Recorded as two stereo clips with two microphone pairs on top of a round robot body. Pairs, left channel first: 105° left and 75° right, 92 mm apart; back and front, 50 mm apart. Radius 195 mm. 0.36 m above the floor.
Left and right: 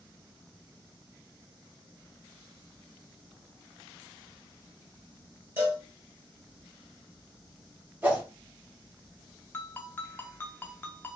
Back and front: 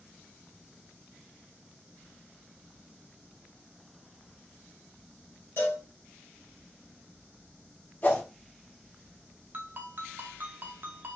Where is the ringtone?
45° left, 0.6 m.